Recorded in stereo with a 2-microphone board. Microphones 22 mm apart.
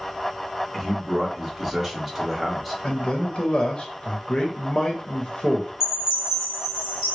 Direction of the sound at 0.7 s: 5° right (ahead or behind).